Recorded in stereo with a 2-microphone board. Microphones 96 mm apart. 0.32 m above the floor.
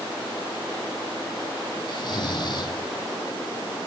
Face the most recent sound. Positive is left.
turn(degrees=50)  # may be behind; listen again after turning